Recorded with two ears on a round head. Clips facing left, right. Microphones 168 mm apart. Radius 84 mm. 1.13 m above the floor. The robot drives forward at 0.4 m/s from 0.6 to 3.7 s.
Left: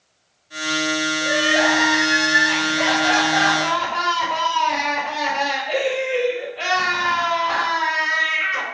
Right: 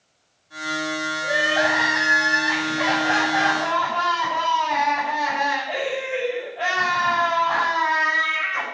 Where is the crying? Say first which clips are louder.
Left 2 dB; 75° left (ahead or behind), 5.5 m; by 8.6 s 85° left, 5.5 m.